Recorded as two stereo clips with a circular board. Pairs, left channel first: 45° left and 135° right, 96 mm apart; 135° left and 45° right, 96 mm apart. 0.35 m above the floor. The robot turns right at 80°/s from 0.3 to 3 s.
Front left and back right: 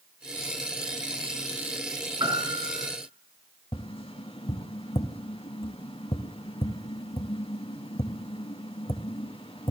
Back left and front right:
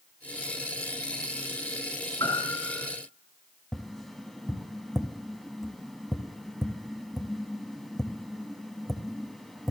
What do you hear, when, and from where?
2.2 s a piano: straight behind, 3.5 m; by 2.9 s 125° right, 3.5 m
3.7 s tapping: 45° left, 0.8 m